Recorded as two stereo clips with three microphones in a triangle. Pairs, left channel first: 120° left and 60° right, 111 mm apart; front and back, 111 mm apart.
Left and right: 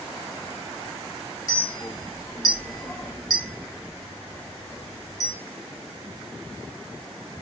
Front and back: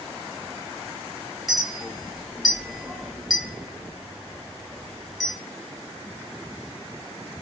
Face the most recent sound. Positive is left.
turn(degrees=90)